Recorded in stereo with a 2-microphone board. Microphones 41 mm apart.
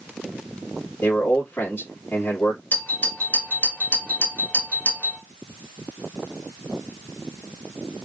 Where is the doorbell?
50° left (ahead or behind), 2 m.